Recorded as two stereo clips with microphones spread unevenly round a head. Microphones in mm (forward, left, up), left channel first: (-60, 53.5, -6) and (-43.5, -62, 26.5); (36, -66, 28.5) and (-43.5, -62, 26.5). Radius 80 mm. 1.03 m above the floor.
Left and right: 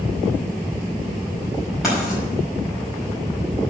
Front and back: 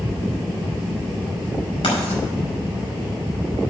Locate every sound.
1.8 s writing: 5° left, 5 m